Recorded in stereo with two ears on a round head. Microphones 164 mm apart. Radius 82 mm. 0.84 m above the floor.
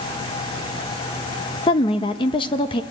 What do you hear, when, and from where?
1.7 s a woman speaking: 25° left (ahead or behind), 1.0 m